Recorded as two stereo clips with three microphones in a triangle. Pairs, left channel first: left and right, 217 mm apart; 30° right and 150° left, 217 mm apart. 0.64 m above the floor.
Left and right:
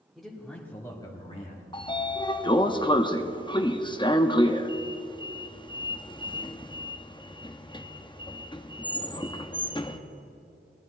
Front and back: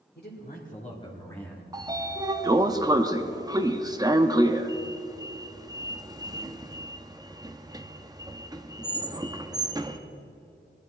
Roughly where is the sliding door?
Left.